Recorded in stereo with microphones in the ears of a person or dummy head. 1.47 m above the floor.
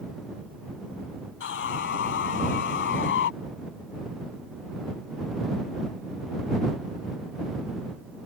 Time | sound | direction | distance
1.4 | sawing | 70° left (ahead or behind) | ?